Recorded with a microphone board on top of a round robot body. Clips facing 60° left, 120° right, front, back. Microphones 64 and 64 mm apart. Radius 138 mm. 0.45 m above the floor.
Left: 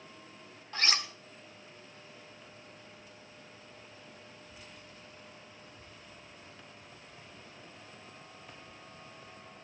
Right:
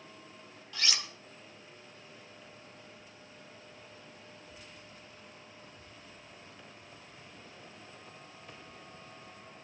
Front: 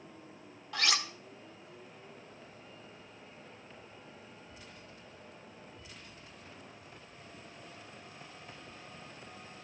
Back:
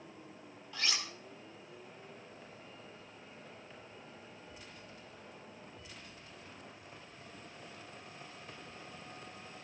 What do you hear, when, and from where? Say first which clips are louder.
0.7 s cutlery clinking: left 4 dB, front 6 dB; 10° left, 1.1 m